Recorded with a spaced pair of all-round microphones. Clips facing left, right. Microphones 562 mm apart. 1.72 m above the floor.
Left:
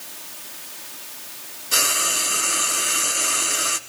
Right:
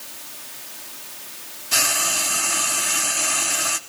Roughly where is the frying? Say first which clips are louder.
Left 1 dB; centre.